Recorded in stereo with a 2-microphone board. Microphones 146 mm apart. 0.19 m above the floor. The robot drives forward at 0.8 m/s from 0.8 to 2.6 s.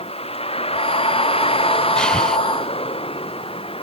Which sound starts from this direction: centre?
Breathing, at 2.0 s.